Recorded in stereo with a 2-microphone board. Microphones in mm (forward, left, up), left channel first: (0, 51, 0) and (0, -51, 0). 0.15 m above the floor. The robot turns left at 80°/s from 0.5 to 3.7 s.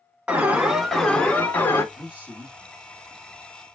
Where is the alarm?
10° right (ahead or behind), 0.9 m; by 1.8 s 20° left (ahead or behind), 0.9 m.